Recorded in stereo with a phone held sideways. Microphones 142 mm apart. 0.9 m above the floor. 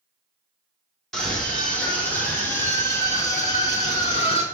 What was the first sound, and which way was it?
A scream, 5° left (ahead or behind).